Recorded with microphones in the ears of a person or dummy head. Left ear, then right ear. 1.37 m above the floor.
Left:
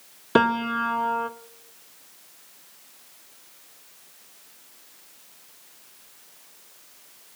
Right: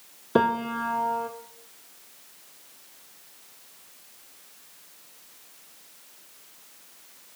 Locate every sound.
0.3 s a piano: 45° left (ahead or behind), 0.5 m